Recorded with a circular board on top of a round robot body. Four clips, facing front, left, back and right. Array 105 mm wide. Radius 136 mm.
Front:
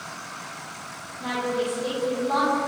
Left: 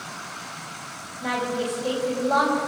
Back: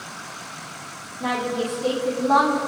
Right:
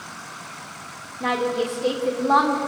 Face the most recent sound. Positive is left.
turn(degrees=-110)